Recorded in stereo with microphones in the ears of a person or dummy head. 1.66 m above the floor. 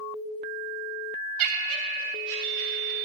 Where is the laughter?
80° right, 0.6 m; by 3.0 s 65° right (ahead or behind), 3 m.